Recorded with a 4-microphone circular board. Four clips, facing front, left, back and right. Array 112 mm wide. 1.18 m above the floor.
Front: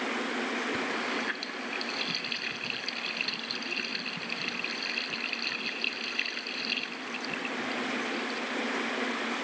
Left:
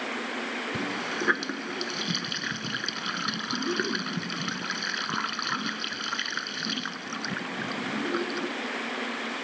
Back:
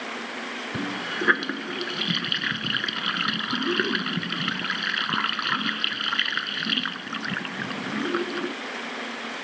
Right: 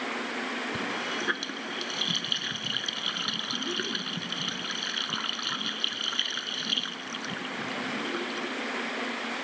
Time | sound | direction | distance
0.7 | a running tap | 160° left | ?